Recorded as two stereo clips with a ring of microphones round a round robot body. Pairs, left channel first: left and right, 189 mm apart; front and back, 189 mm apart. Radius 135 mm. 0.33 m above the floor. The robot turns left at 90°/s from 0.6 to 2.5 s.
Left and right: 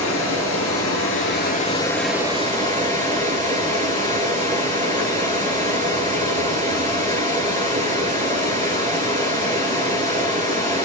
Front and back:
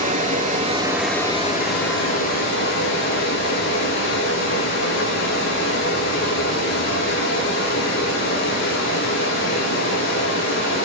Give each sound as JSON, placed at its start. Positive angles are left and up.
{"t": 0.0, "sound": "running water", "azimuth_deg": 130, "distance_m": 6.0}